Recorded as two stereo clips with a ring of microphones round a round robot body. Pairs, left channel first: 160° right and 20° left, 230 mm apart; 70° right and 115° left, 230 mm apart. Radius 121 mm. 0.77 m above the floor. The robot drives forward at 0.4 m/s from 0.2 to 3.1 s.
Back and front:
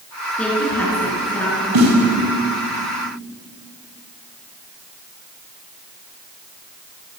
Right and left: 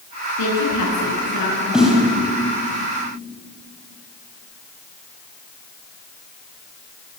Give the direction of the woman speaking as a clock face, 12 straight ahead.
2 o'clock.